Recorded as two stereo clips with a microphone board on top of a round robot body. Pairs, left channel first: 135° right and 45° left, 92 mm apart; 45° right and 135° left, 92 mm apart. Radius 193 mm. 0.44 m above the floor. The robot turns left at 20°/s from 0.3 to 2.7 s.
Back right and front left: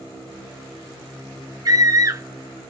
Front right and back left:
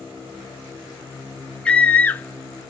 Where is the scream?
25° left, 0.9 m; by 2.7 s 5° left, 0.9 m.